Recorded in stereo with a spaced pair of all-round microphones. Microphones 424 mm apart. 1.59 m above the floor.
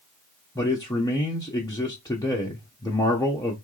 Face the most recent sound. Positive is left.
turn(degrees=10)  # may be behind; listen again after turning